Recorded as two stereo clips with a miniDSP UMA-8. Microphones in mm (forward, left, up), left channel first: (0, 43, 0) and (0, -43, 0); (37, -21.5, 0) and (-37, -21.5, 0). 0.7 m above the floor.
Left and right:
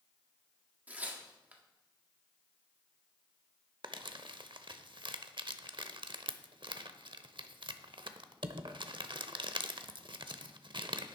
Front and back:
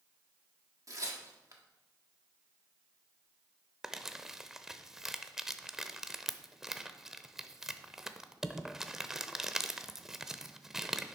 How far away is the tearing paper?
About 1.6 m.